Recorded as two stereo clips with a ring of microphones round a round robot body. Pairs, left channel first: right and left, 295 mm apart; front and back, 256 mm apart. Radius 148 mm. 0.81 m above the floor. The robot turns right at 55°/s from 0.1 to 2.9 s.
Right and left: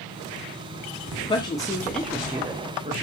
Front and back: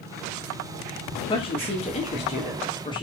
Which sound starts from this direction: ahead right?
A woman speaking, at 1.2 s.